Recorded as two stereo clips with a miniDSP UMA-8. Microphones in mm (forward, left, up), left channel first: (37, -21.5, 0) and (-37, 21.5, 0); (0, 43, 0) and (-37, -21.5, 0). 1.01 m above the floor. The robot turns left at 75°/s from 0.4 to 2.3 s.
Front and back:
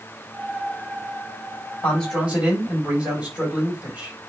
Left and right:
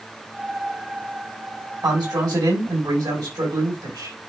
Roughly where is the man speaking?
Right.